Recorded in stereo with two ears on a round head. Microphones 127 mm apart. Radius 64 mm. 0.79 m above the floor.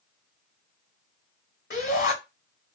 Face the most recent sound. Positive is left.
turn(degrees=75)  # may be behind; listen again after turning